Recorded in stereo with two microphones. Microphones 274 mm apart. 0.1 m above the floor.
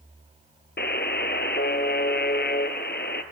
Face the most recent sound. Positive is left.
turn(degrees=40)  # may be behind; listen again after turning